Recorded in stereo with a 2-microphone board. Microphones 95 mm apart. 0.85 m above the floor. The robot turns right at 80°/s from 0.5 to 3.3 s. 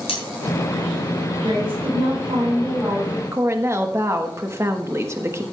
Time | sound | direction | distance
0.1 | cutlery clinking | 85° left | 4.5 m
1.4 | a woman speaking | 125° right | 5.5 m
3.3 | a woman speaking | 30° right (ahead or behind) | 1.2 m